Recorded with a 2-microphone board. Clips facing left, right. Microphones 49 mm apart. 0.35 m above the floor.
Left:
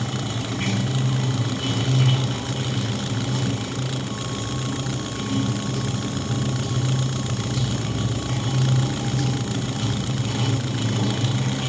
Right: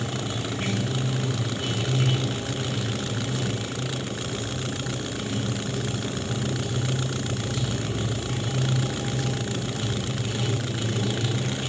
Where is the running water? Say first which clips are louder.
Left 2 dB; 65° left (ahead or behind), 1.8 m.